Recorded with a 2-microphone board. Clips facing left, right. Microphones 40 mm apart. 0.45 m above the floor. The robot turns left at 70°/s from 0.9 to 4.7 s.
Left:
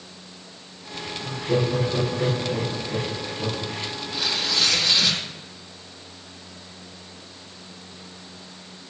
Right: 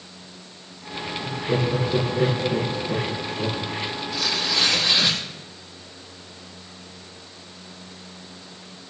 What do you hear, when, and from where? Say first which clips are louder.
1.2 s laughter: left 1 dB; 15° left, 7 m; by 3.7 s 155° right, 7 m
4.1 s tearing paper: even; 30° left, 3.5 m; by 5.2 s 10° right, 3.5 m